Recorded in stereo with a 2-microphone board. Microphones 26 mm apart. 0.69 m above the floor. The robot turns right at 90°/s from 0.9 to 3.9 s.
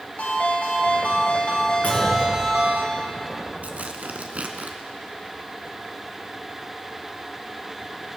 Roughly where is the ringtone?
Left.